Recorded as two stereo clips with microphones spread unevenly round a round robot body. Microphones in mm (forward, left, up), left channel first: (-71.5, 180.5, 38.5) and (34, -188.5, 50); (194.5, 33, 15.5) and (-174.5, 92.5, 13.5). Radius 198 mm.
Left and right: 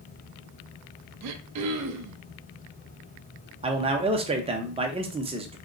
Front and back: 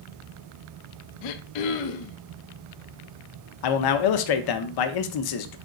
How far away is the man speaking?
About 0.6 m.